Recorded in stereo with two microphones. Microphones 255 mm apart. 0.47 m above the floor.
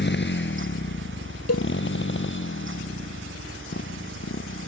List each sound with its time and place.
0.0 s a motorcycle: 45° left (ahead or behind); by 4.7 s 50° left (ahead or behind)
1.5 s a cowbell: 75° left (ahead or behind)